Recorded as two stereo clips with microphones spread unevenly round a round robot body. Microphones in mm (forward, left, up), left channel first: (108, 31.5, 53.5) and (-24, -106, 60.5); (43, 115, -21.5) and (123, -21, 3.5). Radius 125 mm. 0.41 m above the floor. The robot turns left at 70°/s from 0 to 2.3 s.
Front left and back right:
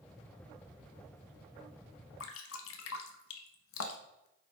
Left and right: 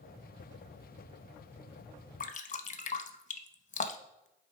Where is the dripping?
80° left, 0.7 m; by 4.3 s 75° left, 0.7 m.